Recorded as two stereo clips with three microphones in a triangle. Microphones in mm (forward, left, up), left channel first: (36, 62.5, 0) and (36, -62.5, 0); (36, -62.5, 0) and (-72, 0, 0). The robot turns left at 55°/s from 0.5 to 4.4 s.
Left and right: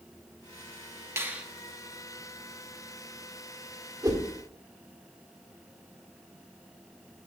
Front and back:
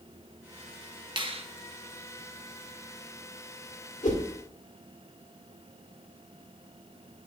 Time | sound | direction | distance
1.2 | a finger snap | 160° right | 0.7 m
4.0 | a whoosh | 25° right | 1.5 m